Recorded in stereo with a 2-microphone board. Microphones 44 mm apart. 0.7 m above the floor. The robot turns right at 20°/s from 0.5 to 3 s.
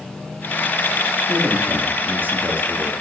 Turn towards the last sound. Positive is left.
turn(degrees=-45)